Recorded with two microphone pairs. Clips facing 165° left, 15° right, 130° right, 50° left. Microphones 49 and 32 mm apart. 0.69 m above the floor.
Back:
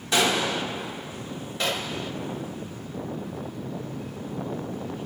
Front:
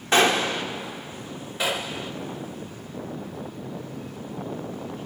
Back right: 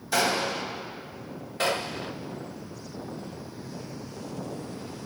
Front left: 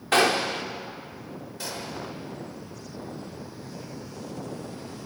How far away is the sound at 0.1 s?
About 1.7 m.